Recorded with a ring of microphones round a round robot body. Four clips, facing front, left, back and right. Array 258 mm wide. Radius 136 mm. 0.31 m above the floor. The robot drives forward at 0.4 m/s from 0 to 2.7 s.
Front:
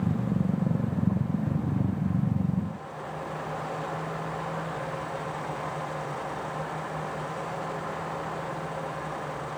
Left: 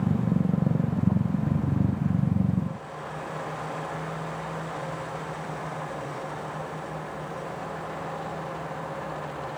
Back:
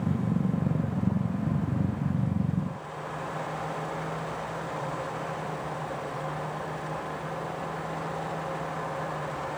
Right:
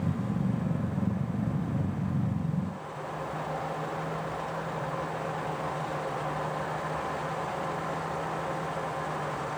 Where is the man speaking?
No man speaking in this recording.